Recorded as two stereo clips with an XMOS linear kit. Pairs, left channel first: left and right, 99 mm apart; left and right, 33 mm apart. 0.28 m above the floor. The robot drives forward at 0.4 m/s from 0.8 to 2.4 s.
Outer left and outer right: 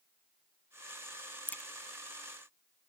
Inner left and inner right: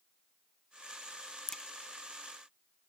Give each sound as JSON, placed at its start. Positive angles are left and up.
{"t": 1.5, "sound": "a crack", "side_deg": 15}